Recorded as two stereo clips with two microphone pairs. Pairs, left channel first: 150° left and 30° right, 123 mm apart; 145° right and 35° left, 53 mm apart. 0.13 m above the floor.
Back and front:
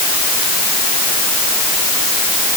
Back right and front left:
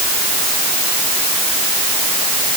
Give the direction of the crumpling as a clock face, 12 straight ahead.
I don't hear crumpling.